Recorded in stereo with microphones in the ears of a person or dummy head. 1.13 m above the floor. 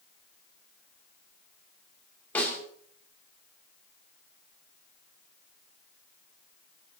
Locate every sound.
2.4 s a snare drum: 10° left (ahead or behind), 7.5 m